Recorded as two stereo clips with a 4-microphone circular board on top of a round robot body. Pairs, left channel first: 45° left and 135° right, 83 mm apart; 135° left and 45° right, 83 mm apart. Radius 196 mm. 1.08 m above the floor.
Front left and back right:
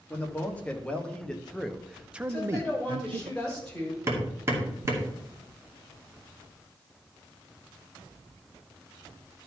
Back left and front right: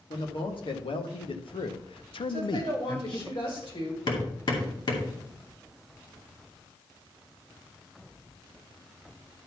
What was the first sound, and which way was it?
A man speaking, 120° left.